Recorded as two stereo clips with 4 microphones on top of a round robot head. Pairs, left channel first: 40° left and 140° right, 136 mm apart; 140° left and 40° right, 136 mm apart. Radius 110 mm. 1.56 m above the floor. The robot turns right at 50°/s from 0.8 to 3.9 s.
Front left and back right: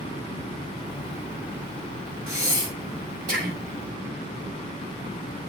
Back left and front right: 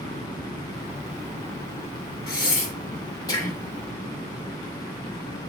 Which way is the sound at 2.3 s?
150° left.